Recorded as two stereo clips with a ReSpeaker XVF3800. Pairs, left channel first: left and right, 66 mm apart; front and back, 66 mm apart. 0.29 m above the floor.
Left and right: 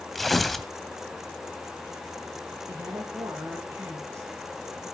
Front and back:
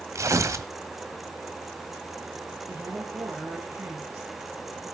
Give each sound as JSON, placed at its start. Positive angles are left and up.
{"t": 0.1, "sound": "tearing paper", "azimuth_deg": 180, "distance_m": 1.3}
{"t": 2.7, "sound": "a woman speaking", "azimuth_deg": -130, "distance_m": 7.0}